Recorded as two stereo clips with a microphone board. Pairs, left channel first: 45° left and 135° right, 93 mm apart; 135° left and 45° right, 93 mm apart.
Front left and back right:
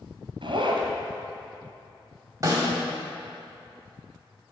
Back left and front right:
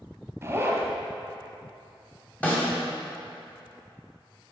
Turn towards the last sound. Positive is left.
turn(degrees=-160)